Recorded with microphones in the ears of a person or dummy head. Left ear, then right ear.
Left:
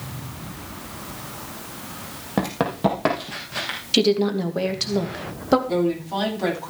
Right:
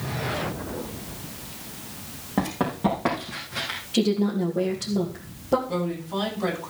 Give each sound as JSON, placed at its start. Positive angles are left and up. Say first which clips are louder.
{"t": 2.4, "sound": "running footsteps", "louder": "left 3 dB", "side_deg": 30, "distance_m": 4.0}
{"t": 3.9, "sound": "a woman speaking", "louder": "left 6 dB", "side_deg": 60, "distance_m": 2.5}
{"t": 5.7, "sound": "a woman speaking", "louder": "left 6 dB", "side_deg": 65, "distance_m": 9.5}